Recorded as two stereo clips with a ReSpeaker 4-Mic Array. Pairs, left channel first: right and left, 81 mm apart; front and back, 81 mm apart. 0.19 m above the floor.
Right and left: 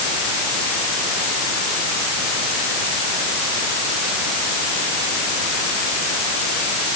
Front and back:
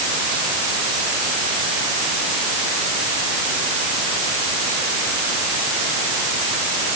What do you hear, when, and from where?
Only background noise.